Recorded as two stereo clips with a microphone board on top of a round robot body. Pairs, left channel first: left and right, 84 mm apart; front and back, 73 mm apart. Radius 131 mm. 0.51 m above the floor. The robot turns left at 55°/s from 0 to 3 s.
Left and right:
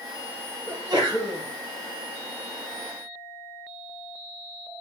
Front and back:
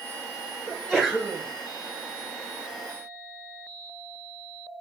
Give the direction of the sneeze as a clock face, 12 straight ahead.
3 o'clock.